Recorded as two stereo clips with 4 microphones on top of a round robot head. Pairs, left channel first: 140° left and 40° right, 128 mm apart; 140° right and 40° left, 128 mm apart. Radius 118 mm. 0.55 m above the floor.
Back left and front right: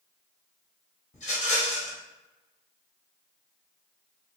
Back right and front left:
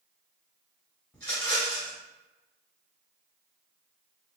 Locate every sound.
1.1 s a rattle: 140° left, 2.0 m